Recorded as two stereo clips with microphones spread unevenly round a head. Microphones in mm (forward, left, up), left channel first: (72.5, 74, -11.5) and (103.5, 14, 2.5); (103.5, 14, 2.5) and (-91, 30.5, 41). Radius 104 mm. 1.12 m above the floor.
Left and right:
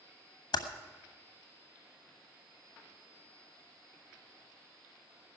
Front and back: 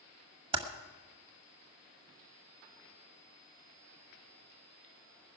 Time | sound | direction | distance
0.5 | typing on a keyboard | 125° left | 1.3 m